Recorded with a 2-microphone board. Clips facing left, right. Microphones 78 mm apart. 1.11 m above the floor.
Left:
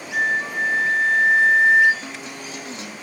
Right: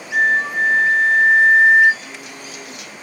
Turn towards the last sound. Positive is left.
turn(degrees=35)  # may be behind; listen again after turning